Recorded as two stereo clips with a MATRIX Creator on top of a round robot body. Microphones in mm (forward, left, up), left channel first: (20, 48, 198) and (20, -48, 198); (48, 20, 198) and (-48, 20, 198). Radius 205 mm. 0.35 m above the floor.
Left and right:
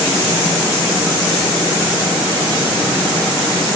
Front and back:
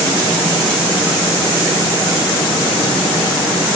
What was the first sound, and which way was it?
Only background noise.